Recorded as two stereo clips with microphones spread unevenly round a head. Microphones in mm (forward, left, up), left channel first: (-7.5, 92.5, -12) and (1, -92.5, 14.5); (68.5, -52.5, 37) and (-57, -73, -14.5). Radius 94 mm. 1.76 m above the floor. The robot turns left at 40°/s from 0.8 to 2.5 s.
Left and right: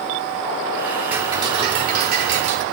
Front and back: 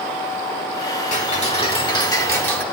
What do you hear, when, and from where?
1.1 s ticking: 5° right, 4.5 m; by 2.6 s 65° right, 4.5 m